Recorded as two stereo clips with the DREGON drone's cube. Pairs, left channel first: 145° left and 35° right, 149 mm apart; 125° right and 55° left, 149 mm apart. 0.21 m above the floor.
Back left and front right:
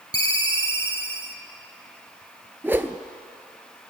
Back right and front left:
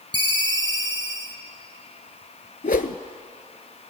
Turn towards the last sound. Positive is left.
turn(degrees=-110)